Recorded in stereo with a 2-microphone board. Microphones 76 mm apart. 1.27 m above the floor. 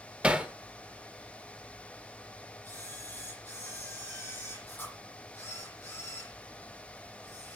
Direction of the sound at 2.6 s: 25° left (ahead or behind).